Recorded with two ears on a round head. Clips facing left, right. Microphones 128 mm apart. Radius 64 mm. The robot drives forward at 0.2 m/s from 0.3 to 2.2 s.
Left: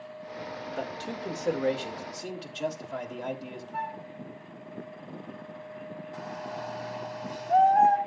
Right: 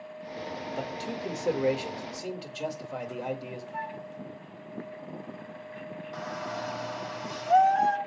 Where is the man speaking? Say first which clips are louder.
Even; 10° right (ahead or behind), 2 m.